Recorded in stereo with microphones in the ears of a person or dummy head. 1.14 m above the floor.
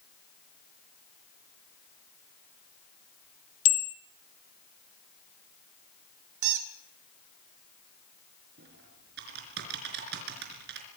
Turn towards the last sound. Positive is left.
turn(degrees=-60)  # may be behind; listen again after turning